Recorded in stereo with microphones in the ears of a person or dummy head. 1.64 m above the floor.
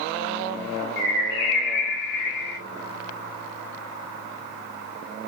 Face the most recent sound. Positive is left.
turn(degrees=70)  # may be behind; listen again after turning